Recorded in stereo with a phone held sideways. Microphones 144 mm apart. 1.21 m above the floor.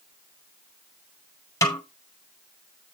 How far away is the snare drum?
About 1.8 m.